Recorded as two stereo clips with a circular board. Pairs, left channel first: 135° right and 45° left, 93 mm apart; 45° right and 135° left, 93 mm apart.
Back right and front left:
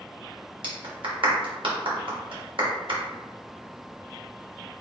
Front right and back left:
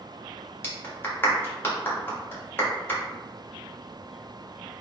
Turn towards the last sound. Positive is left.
turn(degrees=20)